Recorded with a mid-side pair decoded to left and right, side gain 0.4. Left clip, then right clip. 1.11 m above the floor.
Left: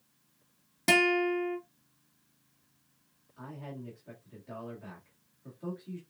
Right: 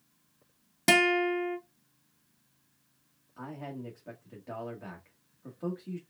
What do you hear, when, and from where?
0.9 s a guitar: 30° right, 0.9 m
3.4 s a man speaking: 65° right, 1.5 m